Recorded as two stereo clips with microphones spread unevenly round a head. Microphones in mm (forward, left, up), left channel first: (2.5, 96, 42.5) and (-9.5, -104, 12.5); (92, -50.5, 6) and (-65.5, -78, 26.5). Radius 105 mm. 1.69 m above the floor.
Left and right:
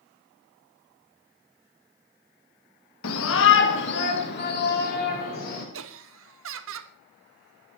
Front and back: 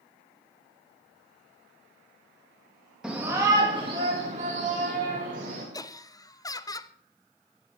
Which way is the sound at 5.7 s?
60° right.